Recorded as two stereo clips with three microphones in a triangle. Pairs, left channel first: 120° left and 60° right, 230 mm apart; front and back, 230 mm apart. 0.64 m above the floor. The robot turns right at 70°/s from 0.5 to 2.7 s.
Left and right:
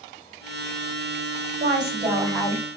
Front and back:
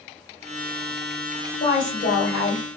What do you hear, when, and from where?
1.6 s a woman speaking: 25° right, 1.7 m; by 2.6 s 50° left, 1.7 m